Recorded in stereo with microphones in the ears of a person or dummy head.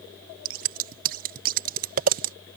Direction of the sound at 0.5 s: 45° right (ahead or behind).